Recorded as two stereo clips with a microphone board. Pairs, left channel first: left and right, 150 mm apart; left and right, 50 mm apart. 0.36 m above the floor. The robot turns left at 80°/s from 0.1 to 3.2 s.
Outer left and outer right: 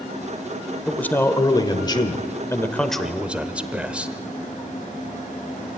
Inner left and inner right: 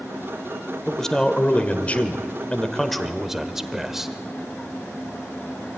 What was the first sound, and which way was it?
A man speaking, 5° left (ahead or behind).